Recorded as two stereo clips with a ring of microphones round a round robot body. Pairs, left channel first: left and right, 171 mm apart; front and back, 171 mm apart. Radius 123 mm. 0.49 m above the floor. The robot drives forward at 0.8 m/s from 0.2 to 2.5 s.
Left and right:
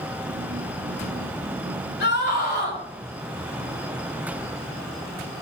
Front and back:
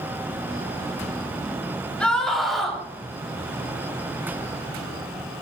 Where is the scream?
85° left, 3.5 m; by 2.8 s 90° left, 3.5 m.